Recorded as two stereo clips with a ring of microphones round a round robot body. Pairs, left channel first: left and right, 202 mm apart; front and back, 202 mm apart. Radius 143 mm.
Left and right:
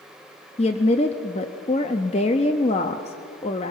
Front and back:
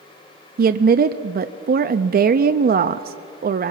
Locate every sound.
0.6 s a woman speaking: 150° left, 0.6 m